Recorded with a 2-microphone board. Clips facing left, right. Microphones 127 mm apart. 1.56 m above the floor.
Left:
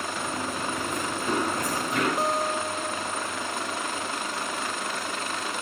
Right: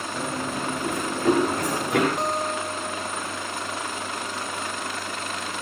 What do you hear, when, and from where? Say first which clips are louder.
0.1 s running footsteps: right 6 dB; 65° right (ahead or behind), 7 m; by 2.1 s 75° right (ahead or behind), 8.5 m
2.2 s a guitar: even; 5° left (ahead or behind), 0.8 m